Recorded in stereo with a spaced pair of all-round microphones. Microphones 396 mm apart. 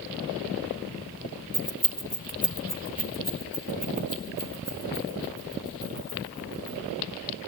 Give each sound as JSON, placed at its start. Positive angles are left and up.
{"t": 1.5, "sound": "keys jangling", "side_deg": -40, "distance_m": 1.1}